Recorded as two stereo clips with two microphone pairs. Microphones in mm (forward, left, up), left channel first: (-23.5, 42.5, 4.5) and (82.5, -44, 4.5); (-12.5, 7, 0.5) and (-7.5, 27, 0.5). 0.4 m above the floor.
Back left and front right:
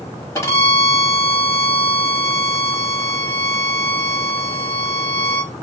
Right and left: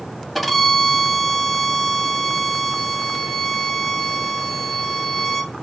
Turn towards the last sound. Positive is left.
turn(degrees=-175)